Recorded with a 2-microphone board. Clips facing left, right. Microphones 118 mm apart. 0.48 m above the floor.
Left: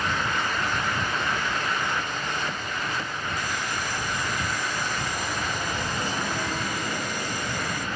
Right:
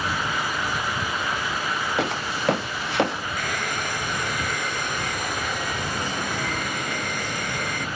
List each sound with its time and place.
2.0 s footsteps: 80° right; by 3.3 s 70° right (ahead or behind)
3.4 s a hair dryer: 60° right (ahead or behind)